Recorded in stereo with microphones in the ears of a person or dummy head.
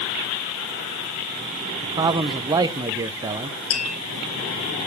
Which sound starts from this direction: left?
Tapping, at 3.7 s.